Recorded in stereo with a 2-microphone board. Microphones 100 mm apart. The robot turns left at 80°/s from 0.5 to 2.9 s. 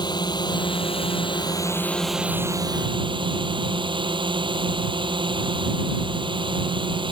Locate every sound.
0.0 s a drone: 130° left; by 7.1 s 65° right